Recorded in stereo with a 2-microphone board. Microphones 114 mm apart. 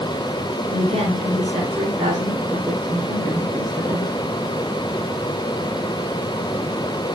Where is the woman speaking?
55° right (ahead or behind), 3.5 m.